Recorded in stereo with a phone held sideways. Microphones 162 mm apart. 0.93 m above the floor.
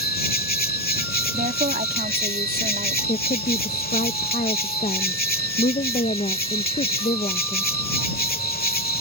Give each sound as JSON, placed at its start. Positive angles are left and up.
{"t": 0.0, "sound": "an insect", "side_deg": 65}
{"t": 1.3, "sound": "a woman speaking", "side_deg": -60}
{"t": 3.1, "sound": "a woman speaking", "side_deg": 45}